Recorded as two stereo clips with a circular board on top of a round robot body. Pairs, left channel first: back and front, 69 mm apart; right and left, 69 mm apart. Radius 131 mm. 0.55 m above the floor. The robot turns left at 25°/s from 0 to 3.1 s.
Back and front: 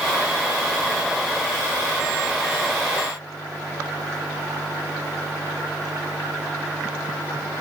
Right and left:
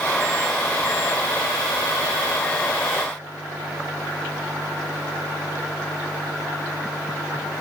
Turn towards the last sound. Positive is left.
No sound to turn to.